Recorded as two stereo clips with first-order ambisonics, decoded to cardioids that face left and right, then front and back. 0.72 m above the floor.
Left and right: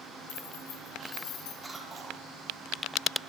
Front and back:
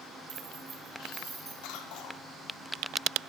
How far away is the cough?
About 2 m.